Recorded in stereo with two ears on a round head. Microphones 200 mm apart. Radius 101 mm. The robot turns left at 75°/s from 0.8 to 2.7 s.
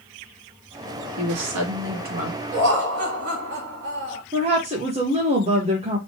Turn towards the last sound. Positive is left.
turn(degrees=-30)  # may be behind; listen again after turning